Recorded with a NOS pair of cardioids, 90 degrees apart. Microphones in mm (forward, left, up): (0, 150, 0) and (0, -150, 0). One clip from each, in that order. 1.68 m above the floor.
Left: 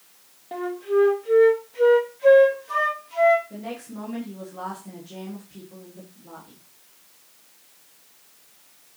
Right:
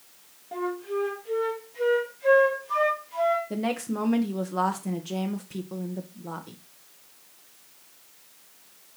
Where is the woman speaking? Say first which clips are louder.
Right 6 dB; 65° right, 1.4 m.